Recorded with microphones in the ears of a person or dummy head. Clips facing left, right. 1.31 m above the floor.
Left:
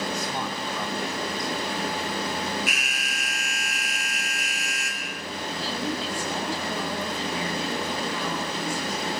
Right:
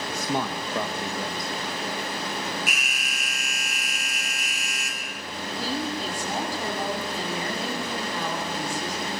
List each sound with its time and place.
0.1 s a man speaking: 50° right (ahead or behind), 1.4 m
2.7 s an alarm: 75° right (ahead or behind), 1.1 m
5.5 s a woman speaking: 40° right (ahead or behind), 9.5 m